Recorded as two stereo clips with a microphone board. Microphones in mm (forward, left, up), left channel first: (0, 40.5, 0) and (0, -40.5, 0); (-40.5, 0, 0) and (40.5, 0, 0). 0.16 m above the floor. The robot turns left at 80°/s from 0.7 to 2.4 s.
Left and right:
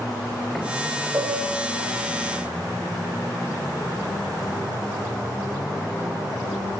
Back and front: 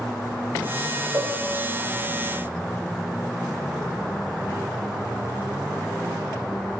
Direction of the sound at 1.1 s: 45° right.